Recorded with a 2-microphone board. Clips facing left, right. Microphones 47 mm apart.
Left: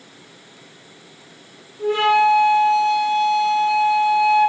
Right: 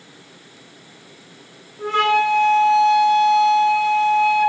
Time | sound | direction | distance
1.8 | a flute | 55° right (ahead or behind) | 4 m